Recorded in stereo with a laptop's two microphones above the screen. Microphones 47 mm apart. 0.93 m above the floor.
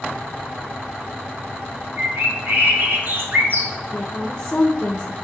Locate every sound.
2.0 s a bird: 45° right (ahead or behind), 1.3 m
3.9 s a woman speaking: 15° left (ahead or behind), 0.8 m